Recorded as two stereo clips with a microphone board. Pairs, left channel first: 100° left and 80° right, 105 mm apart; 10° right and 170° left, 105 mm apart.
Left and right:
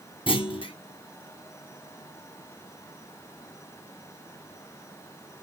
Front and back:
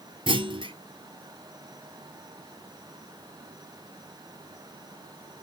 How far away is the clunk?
About 0.9 m.